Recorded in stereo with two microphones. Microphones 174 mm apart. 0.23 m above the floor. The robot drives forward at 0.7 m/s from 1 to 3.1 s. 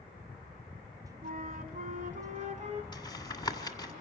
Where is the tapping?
25° left (ahead or behind), 1.9 m.